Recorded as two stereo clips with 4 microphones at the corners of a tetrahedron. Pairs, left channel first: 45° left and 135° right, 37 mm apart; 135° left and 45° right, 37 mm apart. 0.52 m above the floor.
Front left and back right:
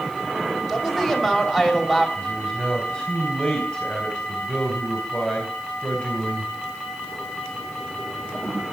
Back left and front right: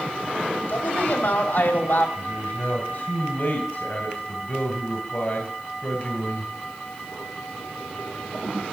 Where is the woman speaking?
140° left, 2.5 m.